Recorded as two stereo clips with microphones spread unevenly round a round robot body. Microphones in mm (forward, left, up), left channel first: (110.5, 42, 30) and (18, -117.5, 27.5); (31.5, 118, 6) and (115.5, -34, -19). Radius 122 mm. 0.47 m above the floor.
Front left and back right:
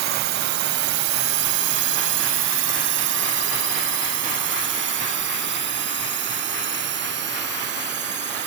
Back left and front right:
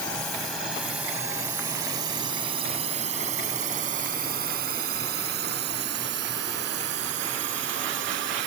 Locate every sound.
0.0 s a drone: 160° right; by 8.5 s 95° right